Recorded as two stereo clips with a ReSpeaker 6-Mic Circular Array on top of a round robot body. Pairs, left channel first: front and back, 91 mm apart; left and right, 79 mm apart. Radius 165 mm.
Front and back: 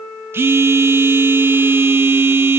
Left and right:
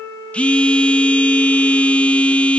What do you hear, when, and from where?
0.3 s a phone buzzing: 150° left, 1.0 m